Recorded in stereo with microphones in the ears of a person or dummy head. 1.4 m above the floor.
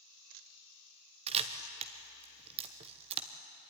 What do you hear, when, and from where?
1.3 s a camera shutter: 30° right (ahead or behind), 1.0 m